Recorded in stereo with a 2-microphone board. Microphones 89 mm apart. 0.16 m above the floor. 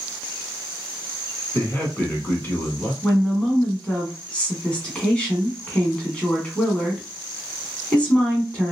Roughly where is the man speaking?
Left.